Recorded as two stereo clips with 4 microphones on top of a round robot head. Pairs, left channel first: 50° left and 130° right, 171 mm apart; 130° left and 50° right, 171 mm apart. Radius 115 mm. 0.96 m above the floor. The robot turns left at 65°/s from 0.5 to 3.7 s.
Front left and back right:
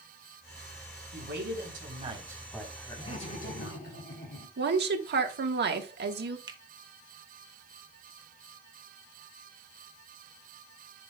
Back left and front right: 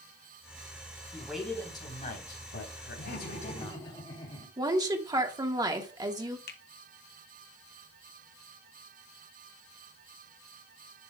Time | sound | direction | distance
1.1 | a man speaking | 125° right | 3.5 m
3.0 | laughter | 115° left | 2.5 m
4.6 | a woman speaking | 120° right | 1.4 m
6.5 | a finger snap | 165° left | 1.0 m